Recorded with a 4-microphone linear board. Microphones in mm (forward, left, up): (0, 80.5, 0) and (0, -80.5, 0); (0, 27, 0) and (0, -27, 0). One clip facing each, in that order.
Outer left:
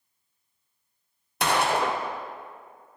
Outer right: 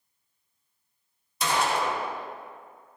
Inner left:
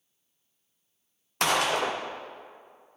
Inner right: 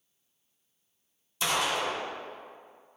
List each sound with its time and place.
1.4 s a gunshot: 65° left (ahead or behind), 0.8 m